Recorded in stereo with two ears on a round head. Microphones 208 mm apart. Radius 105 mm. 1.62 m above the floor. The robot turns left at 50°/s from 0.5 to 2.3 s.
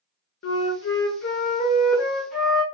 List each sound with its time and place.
0.4 s a flute: 90° left, 0.8 m; by 2.6 s straight ahead, 0.8 m